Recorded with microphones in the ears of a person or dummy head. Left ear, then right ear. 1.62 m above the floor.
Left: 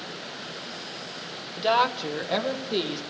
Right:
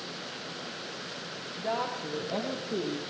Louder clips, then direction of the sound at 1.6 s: Left 10 dB; 55° left (ahead or behind).